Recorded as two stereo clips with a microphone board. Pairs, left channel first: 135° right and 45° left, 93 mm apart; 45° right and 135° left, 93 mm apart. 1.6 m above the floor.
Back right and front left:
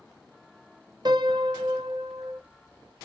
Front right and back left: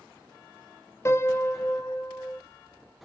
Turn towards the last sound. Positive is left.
turn(degrees=15)